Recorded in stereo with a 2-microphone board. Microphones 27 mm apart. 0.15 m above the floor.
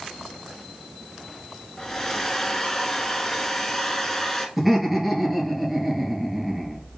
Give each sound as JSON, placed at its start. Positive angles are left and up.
{"t": 1.8, "sound": "a hair dryer", "side_deg": 20, "distance_m": 1.1}
{"t": 4.6, "sound": "laughter", "side_deg": -10, "distance_m": 2.5}